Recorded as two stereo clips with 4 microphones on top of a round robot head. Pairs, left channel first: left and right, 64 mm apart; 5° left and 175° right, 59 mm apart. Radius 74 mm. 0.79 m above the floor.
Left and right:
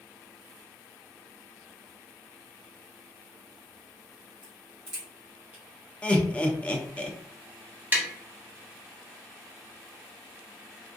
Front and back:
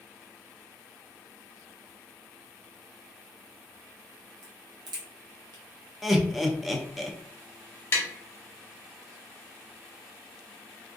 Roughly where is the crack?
Behind.